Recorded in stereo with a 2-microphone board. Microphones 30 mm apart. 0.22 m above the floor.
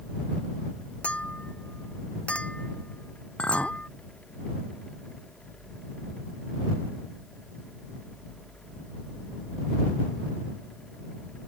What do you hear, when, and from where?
1.0 s a clink: 45° left (ahead or behind)
3.4 s a clink: 45° left (ahead or behind)